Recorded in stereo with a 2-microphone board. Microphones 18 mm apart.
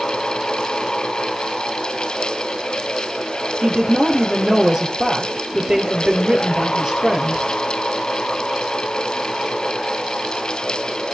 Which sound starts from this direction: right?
A woman speaking, at 3.6 s.